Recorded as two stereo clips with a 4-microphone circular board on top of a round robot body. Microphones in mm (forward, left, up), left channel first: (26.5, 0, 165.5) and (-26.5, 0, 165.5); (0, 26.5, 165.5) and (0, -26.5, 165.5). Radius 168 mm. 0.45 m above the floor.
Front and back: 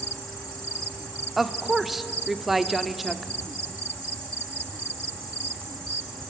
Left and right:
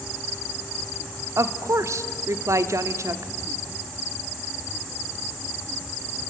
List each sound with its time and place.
1.4 s a woman speaking: 95° right, 1.4 m